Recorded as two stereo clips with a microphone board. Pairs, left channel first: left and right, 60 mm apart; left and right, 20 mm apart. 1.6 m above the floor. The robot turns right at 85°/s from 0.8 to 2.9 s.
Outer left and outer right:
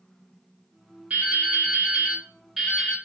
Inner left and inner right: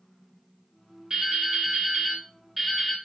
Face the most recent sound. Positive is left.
turn(degrees=25)